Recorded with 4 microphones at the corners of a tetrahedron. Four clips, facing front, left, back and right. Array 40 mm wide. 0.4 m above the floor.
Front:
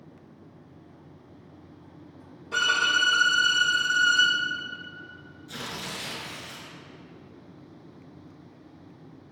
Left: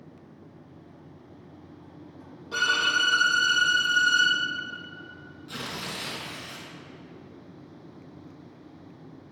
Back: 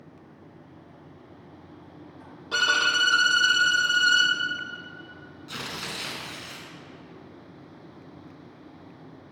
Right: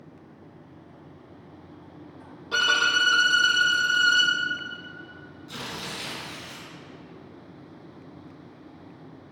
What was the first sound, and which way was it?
A violin, 150° right.